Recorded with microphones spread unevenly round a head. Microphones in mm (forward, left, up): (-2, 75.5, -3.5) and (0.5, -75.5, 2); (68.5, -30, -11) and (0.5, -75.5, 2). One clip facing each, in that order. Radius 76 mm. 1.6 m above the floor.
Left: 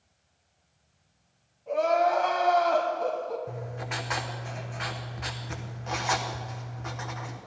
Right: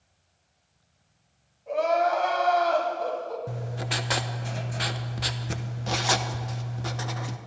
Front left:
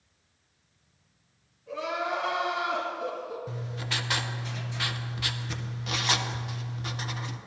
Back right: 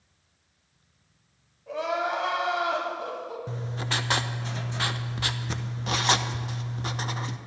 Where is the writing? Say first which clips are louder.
Right 2 dB, back right 3 dB; 115° right, 0.6 m.